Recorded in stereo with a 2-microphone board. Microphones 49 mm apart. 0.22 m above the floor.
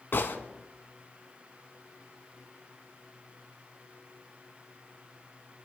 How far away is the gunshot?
About 1.9 m.